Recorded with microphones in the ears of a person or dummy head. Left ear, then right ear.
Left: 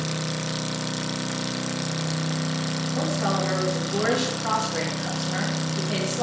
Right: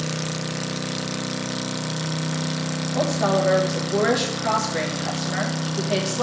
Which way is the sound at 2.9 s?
20° right (ahead or behind).